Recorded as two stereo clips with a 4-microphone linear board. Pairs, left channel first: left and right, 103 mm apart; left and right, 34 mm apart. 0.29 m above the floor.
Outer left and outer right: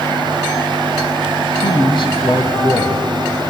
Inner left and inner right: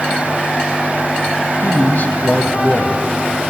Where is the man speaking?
55° left (ahead or behind), 1.6 m.